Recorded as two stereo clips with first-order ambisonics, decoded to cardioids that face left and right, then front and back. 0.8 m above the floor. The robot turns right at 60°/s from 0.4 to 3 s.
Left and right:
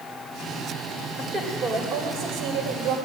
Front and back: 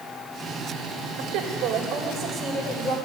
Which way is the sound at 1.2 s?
175° right.